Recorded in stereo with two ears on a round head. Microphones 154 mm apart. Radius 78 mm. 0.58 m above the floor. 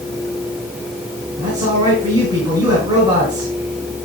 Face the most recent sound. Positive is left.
turn(degrees=-25)  # may be behind; listen again after turning